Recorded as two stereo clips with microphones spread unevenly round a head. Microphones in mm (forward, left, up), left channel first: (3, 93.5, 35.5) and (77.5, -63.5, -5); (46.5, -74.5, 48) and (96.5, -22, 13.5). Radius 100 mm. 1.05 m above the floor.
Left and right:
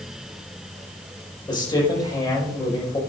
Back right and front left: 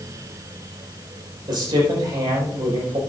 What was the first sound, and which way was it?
A man speaking, 45° left.